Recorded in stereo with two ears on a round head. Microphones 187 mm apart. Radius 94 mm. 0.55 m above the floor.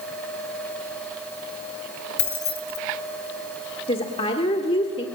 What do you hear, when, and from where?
2.2 s keys jangling: 55° left (ahead or behind), 1.5 m
3.9 s a woman speaking: 25° left (ahead or behind), 1.5 m